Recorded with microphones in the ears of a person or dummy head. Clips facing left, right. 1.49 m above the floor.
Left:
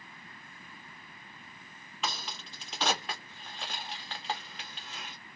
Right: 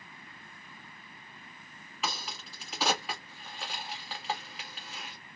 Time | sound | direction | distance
2.0 | a crack | 5° right (ahead or behind) | 1.5 m